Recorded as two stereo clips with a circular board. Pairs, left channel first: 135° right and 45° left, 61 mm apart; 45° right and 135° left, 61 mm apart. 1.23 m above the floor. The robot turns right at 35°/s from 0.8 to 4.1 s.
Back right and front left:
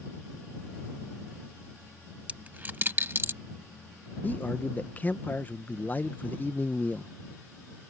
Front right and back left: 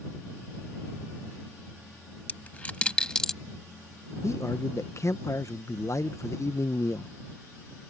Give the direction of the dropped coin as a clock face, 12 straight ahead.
12 o'clock.